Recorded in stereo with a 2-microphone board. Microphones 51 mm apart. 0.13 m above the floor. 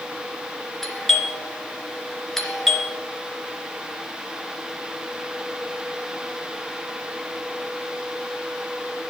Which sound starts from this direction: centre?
A doorbell, at 0.8 s.